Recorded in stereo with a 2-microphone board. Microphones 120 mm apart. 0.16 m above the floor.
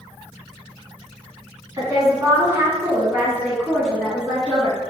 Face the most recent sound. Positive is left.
turn(degrees=15)  # may be behind; listen again after turning